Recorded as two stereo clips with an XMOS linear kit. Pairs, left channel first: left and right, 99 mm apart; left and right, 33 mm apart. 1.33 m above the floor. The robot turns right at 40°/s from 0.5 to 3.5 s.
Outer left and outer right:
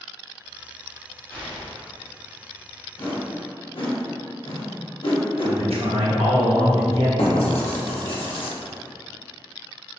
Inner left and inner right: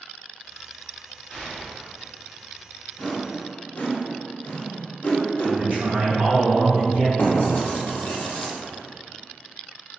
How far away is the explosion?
About 1.4 m.